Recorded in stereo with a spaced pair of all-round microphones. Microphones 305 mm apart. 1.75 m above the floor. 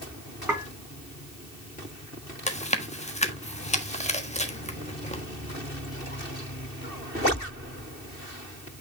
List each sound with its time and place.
0.5 s dishes clattering: 5° right (ahead or behind), 4 m
2.5 s chewing: 20° left (ahead or behind), 1.3 m